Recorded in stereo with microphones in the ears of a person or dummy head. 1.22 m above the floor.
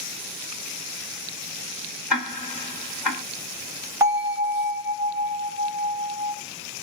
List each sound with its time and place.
2.1 s ticking: centre (ahead or behind), 1.4 m
4.0 s a bell: 10° right (ahead or behind), 1.2 m